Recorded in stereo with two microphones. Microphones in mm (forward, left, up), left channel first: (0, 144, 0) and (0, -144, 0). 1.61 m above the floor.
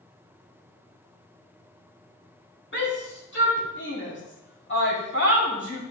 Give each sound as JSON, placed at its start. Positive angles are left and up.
{"t": 2.7, "sound": "a shout", "side_deg": 40, "distance_m": 3.0}